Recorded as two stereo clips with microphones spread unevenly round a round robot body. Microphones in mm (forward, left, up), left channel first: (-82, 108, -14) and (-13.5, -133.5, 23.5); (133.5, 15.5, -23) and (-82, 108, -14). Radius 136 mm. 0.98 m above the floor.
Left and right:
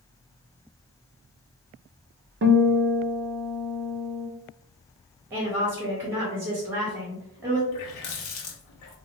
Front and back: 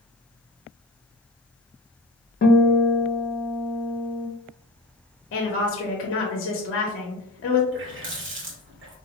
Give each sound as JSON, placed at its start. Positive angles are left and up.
{"t": 2.4, "sound": "a guitar", "azimuth_deg": -40, "distance_m": 0.5}
{"t": 5.3, "sound": "a woman speaking", "azimuth_deg": 10, "distance_m": 0.7}
{"t": 7.7, "sound": "a running tap", "azimuth_deg": 120, "distance_m": 0.9}